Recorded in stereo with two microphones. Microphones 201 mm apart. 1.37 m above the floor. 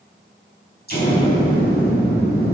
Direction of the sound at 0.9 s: 50° left (ahead or behind).